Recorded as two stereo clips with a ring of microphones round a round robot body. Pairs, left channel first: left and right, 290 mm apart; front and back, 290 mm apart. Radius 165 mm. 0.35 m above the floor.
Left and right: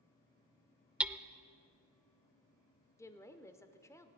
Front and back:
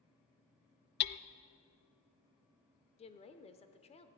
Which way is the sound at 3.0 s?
25° left.